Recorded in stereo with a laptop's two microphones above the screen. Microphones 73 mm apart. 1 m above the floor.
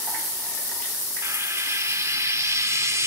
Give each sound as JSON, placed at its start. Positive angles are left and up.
{"t": 1.2, "sound": "frying", "side_deg": -45, "distance_m": 1.9}